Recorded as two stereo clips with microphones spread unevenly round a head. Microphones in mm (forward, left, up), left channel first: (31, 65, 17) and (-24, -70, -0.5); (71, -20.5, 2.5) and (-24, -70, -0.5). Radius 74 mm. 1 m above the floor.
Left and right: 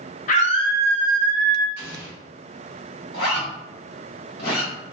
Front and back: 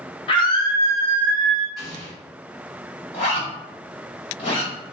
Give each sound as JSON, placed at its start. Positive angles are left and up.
{"t": 0.3, "sound": "a scream", "azimuth_deg": 50, "distance_m": 0.6}
{"t": 1.8, "sound": "an explosion", "azimuth_deg": 120, "distance_m": 1.2}
{"t": 3.1, "sound": "a zipper", "azimuth_deg": 55, "distance_m": 1.6}